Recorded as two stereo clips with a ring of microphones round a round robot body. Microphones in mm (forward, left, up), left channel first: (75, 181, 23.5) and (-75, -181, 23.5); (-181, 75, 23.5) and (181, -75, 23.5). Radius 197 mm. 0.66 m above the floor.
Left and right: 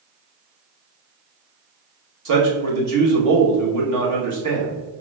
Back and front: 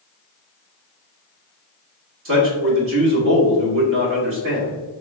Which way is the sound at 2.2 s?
75° right.